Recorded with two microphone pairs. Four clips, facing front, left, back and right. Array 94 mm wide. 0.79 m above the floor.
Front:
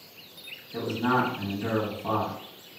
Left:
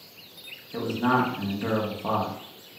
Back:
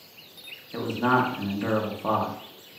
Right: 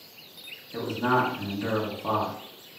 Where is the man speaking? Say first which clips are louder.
Left 1 dB, back 2 dB; 170° left, 0.8 m.